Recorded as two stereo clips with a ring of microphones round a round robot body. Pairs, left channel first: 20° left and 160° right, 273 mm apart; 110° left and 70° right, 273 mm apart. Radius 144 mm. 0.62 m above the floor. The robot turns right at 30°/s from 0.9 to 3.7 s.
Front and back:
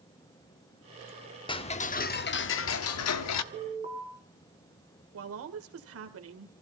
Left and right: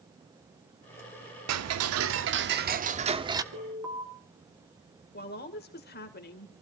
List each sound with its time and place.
1.5 s ticking: 50° right, 1.0 m; by 3.4 s 10° left, 1.0 m
3.5 s an alarm: 90° right, 5.5 m; by 4.0 s 85° right, 5.5 m
5.1 s a woman speaking: 165° left, 2.5 m